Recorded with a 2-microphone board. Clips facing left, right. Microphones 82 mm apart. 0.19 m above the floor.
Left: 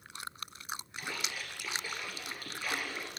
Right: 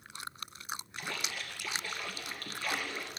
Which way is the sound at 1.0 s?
5° left (ahead or behind).